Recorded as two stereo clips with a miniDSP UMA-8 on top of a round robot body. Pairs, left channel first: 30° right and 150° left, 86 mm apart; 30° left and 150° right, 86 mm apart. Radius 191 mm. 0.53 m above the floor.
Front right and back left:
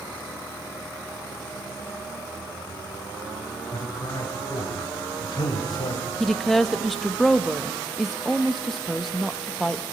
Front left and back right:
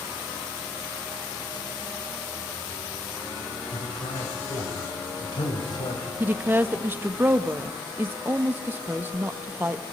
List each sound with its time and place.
3.7 s a man speaking: 10° left, 3.5 m
6.2 s a woman speaking: 120° right, 1.3 m